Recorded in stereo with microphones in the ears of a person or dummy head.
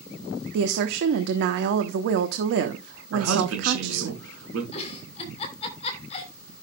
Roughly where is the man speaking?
Right.